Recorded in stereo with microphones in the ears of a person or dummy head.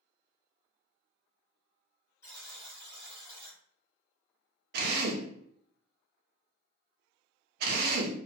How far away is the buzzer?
About 1.2 m.